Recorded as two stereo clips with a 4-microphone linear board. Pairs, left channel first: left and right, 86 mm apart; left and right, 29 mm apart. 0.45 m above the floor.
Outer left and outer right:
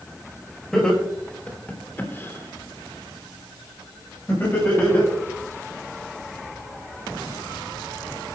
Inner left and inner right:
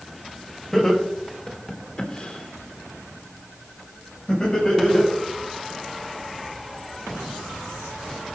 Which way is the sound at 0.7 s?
5° left (ahead or behind).